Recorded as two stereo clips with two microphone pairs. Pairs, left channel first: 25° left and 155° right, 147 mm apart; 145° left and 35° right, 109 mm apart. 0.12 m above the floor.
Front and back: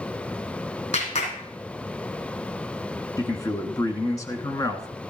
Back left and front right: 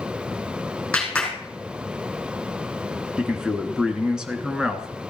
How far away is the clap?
About 4.5 m.